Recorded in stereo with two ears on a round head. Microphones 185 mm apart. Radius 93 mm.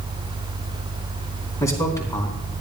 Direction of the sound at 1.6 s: 15° left (ahead or behind).